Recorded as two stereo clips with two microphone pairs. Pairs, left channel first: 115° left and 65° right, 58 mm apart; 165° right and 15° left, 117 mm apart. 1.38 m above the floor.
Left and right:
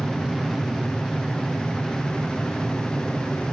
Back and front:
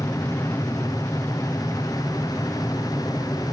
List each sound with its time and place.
0.0 s an aircraft: 125° right